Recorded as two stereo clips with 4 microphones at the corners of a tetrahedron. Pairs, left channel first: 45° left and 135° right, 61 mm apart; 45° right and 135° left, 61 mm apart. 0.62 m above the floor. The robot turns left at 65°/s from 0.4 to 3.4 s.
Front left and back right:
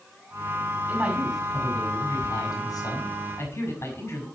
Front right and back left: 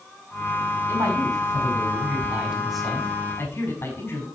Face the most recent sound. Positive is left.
turn(degrees=0)